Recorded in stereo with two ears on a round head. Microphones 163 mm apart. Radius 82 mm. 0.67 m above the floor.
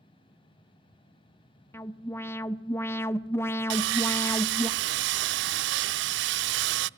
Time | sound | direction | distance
1.7 | an alarm | 15° left (ahead or behind) | 0.8 m
3.7 | sawing | 75° right (ahead or behind) | 0.5 m